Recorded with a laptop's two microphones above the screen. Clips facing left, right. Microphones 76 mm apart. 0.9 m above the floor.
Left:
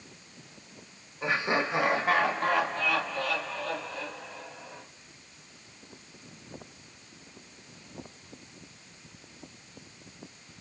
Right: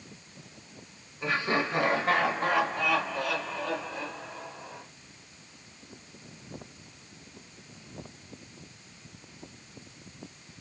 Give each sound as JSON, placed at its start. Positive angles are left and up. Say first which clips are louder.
{"t": 1.2, "sound": "laughter", "louder": "even", "side_deg": 20, "distance_m": 1.5}